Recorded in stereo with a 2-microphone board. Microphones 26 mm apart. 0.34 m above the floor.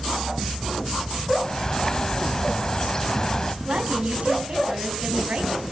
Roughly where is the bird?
Left.